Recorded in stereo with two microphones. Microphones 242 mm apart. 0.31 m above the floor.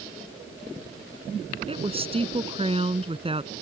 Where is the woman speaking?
25° right (ahead or behind).